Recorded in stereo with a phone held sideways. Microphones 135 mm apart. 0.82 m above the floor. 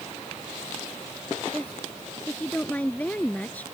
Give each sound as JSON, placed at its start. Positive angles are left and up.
{"t": 1.5, "sound": "a woman speaking", "side_deg": 10}